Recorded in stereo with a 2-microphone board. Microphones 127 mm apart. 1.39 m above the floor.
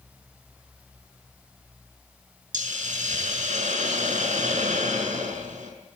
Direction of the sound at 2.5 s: 80° right.